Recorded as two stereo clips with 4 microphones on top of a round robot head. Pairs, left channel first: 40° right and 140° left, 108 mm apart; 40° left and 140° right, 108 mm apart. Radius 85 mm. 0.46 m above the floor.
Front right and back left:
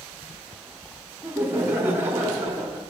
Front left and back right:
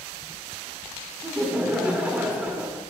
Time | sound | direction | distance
1.2 | laughter | 165° left | 0.7 m